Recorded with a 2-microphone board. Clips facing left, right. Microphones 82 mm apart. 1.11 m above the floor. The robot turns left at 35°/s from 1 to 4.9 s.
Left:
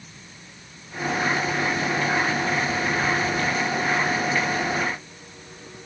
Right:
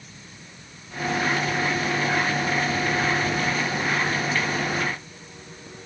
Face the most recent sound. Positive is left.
No sound to turn to.